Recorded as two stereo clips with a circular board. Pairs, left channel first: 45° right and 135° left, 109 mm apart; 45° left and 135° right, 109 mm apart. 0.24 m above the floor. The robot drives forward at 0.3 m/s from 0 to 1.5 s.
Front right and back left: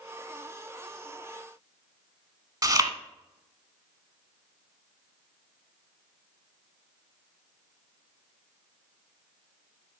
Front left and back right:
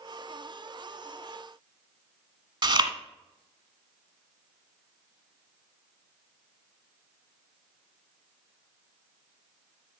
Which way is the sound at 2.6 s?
175° right.